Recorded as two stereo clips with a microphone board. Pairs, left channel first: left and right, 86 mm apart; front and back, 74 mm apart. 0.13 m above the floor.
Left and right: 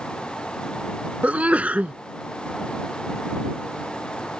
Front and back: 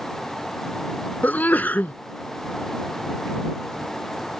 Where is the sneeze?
35° right.